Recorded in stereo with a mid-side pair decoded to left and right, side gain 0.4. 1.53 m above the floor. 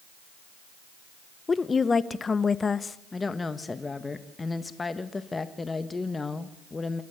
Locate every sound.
1.5 s a woman speaking: 35° left, 1.1 m
3.1 s a woman speaking: 30° left, 1.4 m